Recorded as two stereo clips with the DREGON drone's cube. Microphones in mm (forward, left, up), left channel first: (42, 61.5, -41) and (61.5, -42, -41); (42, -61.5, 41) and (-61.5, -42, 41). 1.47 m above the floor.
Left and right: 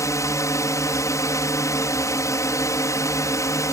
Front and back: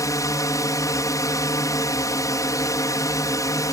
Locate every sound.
0.0 s a drone: 45° left